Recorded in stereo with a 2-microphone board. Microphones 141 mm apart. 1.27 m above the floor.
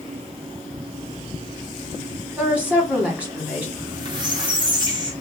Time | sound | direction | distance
2.4 | a woman speaking | 10° right (ahead or behind) | 1.3 m
3.8 | a squeak | 30° right (ahead or behind) | 0.8 m